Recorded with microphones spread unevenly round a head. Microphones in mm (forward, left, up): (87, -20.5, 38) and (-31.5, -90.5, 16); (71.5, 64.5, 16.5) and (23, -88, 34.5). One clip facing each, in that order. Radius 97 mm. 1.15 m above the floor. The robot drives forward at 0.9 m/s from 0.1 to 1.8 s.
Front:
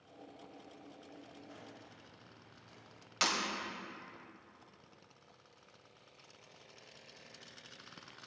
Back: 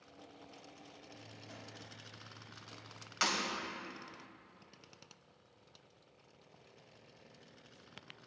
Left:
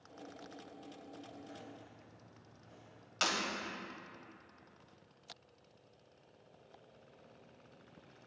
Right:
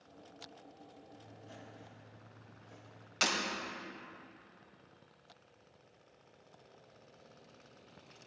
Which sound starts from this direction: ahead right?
Breaking glass, at 3.2 s.